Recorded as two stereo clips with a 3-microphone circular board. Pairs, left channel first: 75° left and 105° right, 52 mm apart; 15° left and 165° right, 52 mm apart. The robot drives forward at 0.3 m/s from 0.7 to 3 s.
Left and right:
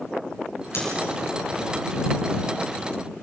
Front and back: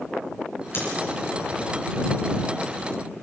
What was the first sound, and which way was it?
Scissors, 45° left.